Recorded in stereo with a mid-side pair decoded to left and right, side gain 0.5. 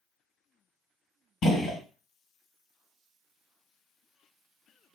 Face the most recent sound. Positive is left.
turn(degrees=50)